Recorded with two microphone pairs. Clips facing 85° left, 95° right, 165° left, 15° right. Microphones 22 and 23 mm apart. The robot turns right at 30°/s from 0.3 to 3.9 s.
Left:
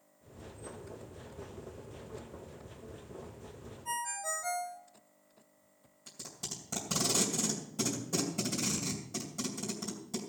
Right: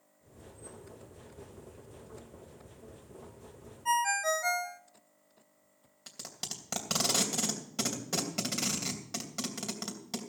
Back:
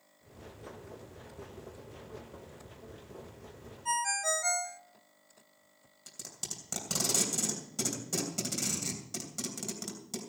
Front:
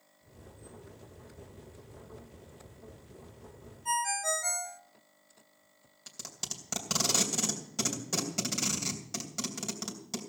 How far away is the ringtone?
About 0.7 m.